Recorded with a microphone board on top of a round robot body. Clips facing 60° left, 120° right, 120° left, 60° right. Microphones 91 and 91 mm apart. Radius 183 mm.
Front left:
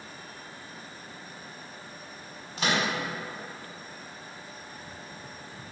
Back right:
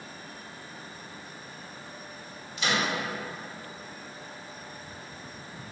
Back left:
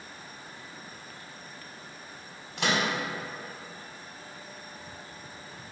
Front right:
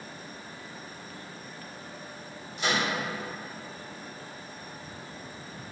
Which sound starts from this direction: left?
A microwave, at 2.6 s.